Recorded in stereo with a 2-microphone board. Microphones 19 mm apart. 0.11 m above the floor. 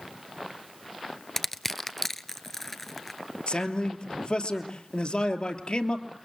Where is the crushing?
15° left (ahead or behind), 0.7 m.